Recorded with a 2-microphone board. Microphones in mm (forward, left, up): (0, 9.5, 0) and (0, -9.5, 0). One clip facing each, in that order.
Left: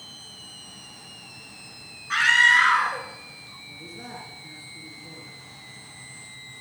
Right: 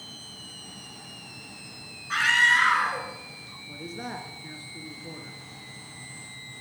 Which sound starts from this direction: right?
A man speaking, at 3.7 s.